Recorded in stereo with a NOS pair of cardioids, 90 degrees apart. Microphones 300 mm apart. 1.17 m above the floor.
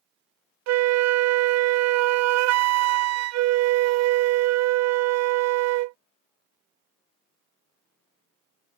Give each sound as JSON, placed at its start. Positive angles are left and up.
{"t": 0.7, "sound": "a flute", "azimuth_deg": -60}